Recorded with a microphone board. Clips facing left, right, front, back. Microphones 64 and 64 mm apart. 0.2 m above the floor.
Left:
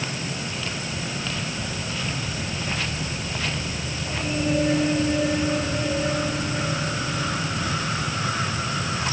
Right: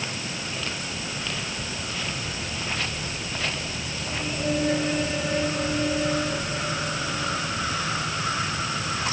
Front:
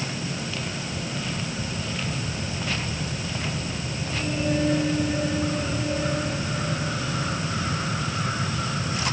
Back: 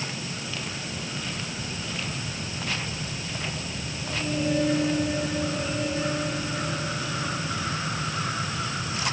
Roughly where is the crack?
I don't hear a crack.